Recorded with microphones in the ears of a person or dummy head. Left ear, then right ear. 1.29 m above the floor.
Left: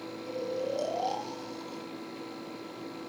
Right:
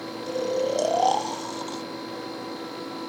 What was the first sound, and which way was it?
Snoring, 45° right (ahead or behind).